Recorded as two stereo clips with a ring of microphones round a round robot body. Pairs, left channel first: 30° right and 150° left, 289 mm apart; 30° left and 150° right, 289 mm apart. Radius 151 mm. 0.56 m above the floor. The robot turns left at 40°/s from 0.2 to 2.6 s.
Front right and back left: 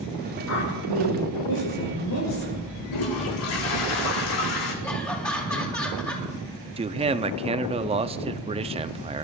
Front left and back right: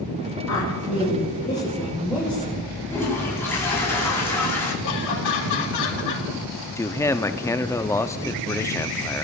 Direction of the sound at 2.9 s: 50° right.